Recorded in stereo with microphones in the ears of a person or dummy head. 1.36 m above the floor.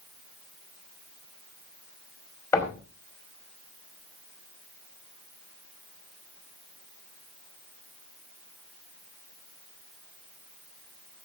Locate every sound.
2.5 s knocking: 20° left (ahead or behind), 5 m